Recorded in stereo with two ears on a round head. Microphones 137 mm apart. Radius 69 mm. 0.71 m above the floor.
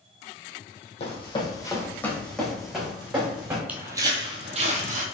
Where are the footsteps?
10° right (ahead or behind), 1.1 m; by 5.0 s 60° right (ahead or behind), 1.5 m.